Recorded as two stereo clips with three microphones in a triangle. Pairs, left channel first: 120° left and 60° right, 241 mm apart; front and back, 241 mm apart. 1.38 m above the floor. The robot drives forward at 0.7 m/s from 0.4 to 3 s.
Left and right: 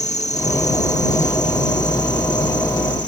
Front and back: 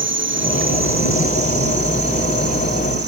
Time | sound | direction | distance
0.0 | an insect | 170° left | ?